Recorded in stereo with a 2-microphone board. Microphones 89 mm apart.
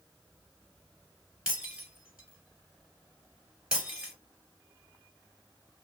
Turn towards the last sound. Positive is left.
turn(degrees=-10)  # may be behind; listen again after turning